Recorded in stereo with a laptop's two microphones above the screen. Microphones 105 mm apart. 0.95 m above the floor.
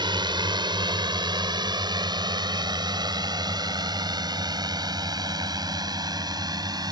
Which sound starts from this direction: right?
A drone, at 0.0 s.